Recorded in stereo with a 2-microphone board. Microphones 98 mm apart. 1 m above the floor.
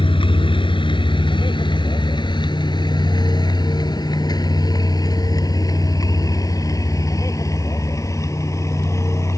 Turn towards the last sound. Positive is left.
turn(degrees=30)  # may be behind; listen again after turning